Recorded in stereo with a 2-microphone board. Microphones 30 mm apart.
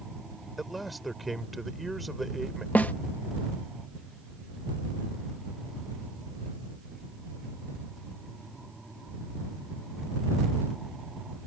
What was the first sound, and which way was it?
A man speaking, centre (ahead or behind).